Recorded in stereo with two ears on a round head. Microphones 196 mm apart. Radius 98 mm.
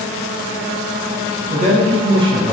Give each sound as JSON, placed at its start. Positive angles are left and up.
{"t": 1.5, "sound": "a man speaking", "side_deg": -35, "distance_m": 1.2}